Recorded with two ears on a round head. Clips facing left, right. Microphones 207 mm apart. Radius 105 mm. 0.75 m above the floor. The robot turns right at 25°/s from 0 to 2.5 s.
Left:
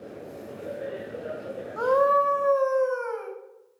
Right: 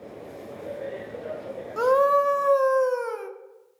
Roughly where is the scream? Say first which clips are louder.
Right 2 dB; right.